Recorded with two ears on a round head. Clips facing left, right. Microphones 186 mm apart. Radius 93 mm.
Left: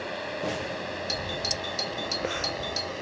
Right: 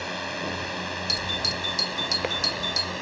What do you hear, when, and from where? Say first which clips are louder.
0.0 s a drone: left 1 dB; 60° right (ahead or behind); by 3.0 s 70° right (ahead or behind)
1.1 s a doorbell: even; 30° right (ahead or behind)